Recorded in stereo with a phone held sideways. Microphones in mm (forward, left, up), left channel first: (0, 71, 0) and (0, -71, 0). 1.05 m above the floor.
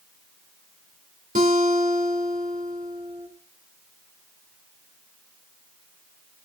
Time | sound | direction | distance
1.4 | a guitar | 65° right (ahead or behind) | 2.5 m